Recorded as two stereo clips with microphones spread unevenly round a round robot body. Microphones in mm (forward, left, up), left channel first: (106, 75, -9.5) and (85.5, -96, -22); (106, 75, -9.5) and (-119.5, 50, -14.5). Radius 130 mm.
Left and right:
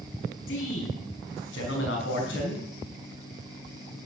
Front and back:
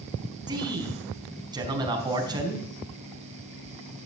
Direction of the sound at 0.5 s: 115° left.